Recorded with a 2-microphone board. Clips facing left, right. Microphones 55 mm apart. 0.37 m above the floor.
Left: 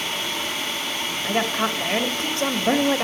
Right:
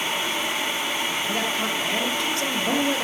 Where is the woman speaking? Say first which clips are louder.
Left 2 dB; 45° left (ahead or behind), 1.6 m.